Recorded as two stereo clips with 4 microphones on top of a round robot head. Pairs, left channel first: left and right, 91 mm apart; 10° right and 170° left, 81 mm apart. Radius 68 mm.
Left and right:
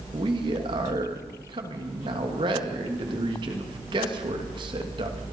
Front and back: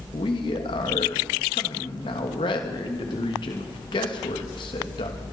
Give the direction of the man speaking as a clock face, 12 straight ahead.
2 o'clock.